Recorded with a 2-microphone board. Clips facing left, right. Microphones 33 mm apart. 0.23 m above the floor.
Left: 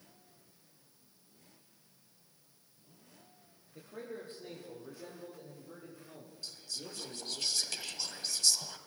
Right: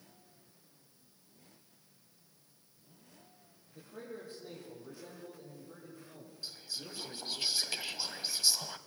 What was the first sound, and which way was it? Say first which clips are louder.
A man speaking: left 2 dB; 45° left (ahead or behind).